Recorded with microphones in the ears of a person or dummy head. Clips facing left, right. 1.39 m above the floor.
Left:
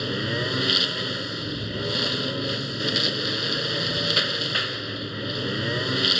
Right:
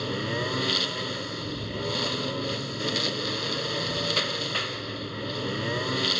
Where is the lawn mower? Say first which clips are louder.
Left 2 dB; 10° left (ahead or behind).